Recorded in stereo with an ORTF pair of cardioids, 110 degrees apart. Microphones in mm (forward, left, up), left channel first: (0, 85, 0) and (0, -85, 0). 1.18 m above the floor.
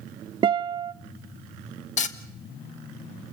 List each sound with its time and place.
0.4 s a guitar: 30° right, 0.6 m
2.0 s frying: 45° left, 1.4 m